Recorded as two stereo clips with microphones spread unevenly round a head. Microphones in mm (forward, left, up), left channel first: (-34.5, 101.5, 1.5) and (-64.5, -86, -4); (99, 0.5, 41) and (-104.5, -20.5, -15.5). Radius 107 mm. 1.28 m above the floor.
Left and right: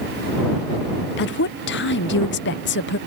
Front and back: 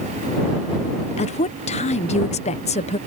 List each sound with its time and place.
1.2 s a woman speaking: 70° left